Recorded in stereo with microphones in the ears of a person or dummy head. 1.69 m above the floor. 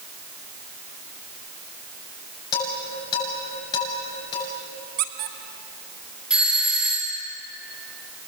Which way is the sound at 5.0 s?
70° right (ahead or behind).